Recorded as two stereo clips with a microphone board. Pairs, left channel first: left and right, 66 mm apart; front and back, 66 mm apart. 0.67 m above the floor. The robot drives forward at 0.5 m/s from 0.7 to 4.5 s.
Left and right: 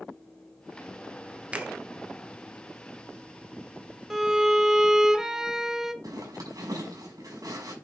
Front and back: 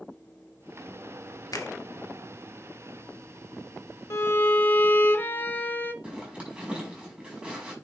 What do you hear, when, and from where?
1.5 s a finger snap: 20° right, 1.0 m; by 1.7 s 25° right, 1.0 m
4.1 s a violin: 10° right, 0.9 m; by 5.9 s 15° right, 0.8 m
6.0 s a zipper: 115° right, 6 m